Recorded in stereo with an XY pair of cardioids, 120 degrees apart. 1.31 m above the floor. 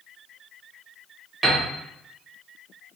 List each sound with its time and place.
1.4 s a piano: 30° right, 0.9 m